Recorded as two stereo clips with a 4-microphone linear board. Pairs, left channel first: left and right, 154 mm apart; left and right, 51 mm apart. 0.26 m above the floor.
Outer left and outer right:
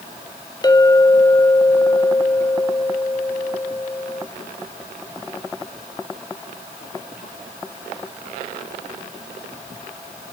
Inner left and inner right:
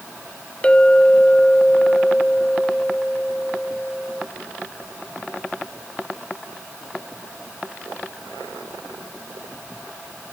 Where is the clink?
25° left (ahead or behind), 1.0 m.